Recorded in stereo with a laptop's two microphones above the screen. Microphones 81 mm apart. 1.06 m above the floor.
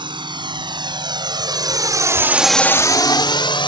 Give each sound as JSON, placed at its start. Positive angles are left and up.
{"t": 0.0, "sound": "a drone", "side_deg": -75}